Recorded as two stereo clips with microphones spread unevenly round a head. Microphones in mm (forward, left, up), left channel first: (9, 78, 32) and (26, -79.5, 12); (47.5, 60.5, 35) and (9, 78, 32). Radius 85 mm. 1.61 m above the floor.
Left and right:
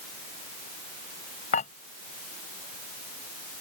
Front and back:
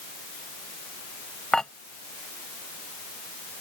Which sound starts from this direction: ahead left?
Dishes clattering, at 1.5 s.